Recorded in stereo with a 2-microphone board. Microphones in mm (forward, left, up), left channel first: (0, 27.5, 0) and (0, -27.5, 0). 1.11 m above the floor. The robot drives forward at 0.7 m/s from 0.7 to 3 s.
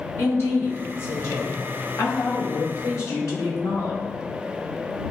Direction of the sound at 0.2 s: 55° left (ahead or behind).